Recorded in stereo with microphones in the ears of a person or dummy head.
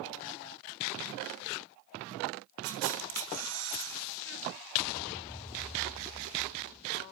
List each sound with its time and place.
2.6 s a camera shutter: 75° right (ahead or behind), 4.5 m